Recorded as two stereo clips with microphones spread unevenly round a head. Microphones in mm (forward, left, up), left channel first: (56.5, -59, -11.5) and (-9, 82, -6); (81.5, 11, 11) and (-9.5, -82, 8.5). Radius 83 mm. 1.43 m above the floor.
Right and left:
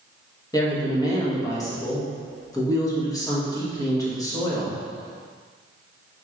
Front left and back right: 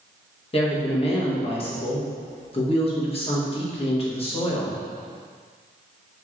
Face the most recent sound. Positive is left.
turn(degrees=5)